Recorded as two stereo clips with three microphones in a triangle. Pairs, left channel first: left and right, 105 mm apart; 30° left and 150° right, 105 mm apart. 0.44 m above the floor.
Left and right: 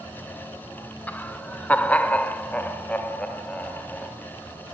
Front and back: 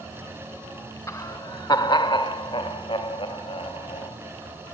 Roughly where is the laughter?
Ahead left.